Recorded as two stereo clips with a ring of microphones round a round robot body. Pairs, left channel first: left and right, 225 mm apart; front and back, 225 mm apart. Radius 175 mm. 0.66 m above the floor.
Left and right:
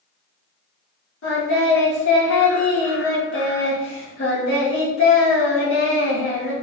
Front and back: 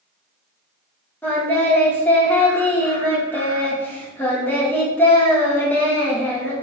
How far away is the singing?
About 1.7 m.